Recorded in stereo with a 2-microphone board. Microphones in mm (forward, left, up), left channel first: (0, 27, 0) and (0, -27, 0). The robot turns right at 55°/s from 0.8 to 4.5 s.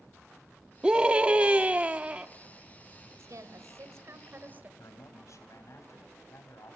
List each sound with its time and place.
0.8 s a scream: 15° right (ahead or behind), 0.7 m; by 2.3 s 20° right (ahead or behind), 0.7 m
3.2 s a woman speaking: 110° right, 2.5 m; by 4.7 s 35° right, 2.5 m
4.8 s a man speaking: 70° left (ahead or behind), 3.5 m